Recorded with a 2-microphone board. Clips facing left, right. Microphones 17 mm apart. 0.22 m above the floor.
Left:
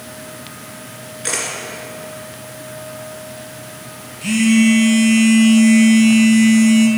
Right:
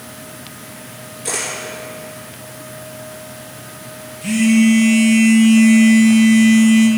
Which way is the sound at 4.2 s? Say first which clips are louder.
Even; 25° left (ahead or behind).